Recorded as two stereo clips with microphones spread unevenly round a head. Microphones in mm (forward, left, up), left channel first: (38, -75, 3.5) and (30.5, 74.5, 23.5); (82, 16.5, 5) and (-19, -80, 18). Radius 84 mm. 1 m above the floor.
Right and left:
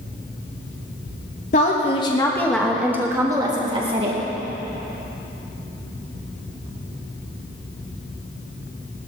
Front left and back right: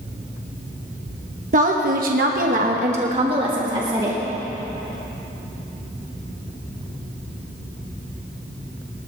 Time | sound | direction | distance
1.5 | a woman speaking | 115° right | 1.4 m